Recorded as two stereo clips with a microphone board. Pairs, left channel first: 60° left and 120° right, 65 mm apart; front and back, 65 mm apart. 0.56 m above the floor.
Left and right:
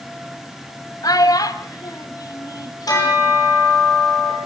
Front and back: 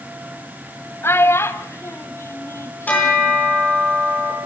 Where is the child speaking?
50° left, 1.8 m; by 3.4 s 45° left, 3 m.